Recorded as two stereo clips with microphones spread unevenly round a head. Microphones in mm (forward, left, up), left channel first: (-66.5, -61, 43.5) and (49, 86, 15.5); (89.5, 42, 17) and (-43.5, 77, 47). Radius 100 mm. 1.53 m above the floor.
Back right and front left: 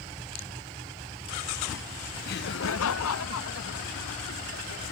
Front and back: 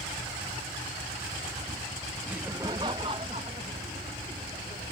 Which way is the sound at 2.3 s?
120° right.